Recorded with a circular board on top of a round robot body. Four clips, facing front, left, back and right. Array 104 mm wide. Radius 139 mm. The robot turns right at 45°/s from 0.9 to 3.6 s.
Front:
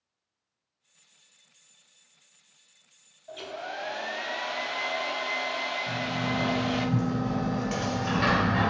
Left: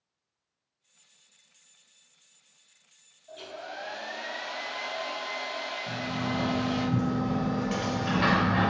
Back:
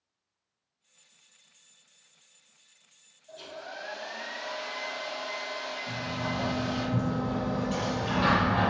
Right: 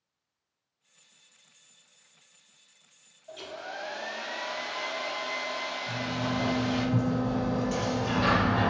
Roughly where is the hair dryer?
Ahead right.